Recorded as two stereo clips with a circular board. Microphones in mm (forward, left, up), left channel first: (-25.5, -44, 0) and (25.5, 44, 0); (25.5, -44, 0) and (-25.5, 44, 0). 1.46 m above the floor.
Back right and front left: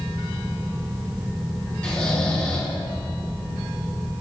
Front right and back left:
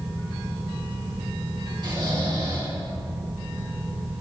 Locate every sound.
1.8 s snoring: 165° left, 3 m